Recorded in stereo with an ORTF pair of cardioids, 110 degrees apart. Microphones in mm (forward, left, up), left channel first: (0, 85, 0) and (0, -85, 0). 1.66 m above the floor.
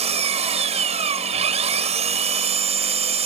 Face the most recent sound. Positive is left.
turn(degrees=-40)